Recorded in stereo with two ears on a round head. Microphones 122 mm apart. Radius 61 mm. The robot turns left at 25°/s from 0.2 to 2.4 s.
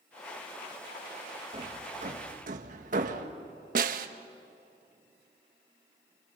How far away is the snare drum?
About 1.3 m.